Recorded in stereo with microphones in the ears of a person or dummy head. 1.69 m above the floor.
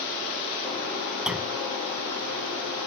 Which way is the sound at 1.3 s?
5° right (ahead or behind).